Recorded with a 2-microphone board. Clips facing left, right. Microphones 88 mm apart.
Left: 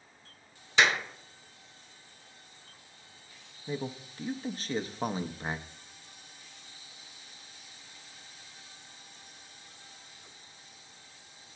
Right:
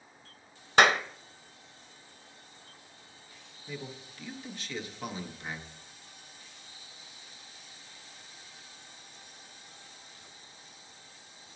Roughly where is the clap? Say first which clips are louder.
Right 4 dB; right.